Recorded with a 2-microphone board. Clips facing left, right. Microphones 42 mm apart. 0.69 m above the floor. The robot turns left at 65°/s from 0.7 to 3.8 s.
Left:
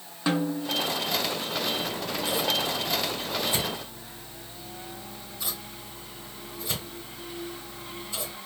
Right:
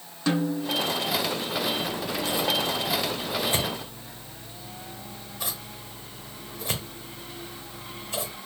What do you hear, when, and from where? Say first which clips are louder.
0.3 s a snare drum: right 1 dB; 20° left (ahead or behind), 0.7 m; by 0.8 s 25° left (ahead or behind), 0.7 m
1.8 s scissors: right 1 dB; 50° left (ahead or behind), 1.4 m; by 8.4 s 80° right, 1.4 m